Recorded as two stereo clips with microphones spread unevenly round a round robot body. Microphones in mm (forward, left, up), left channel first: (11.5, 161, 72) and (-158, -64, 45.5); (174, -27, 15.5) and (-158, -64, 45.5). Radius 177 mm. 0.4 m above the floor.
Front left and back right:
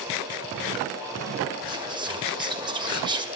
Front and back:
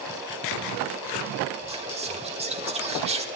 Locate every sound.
1.7 s whispering: 125° right, 1.4 m